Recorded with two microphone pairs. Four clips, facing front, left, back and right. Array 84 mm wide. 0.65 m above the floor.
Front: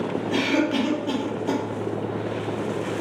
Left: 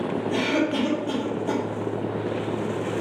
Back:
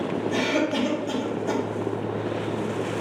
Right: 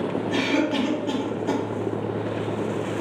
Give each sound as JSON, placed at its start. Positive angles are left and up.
{"t": 0.3, "sound": "a cough", "azimuth_deg": -45, "distance_m": 1.1}